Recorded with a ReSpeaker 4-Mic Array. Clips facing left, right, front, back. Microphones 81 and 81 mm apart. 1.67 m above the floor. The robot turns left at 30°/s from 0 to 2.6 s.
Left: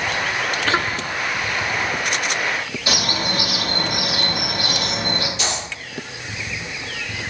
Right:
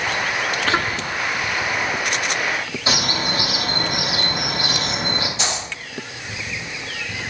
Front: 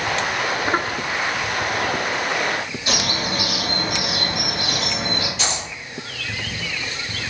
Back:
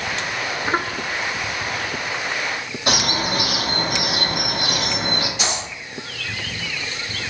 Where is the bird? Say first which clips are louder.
Right 1 dB, back 4 dB; 150° right, 0.9 m.